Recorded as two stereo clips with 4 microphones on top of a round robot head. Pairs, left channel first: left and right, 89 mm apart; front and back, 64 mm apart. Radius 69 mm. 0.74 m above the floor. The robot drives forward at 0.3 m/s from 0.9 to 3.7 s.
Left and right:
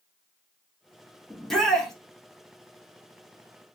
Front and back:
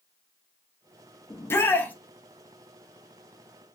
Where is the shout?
5° left, 0.7 m; by 1.9 s 10° left, 0.6 m.